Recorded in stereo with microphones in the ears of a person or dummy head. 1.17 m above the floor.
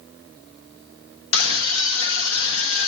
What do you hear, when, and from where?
1.3 s a scream: 75° left (ahead or behind), 1.5 m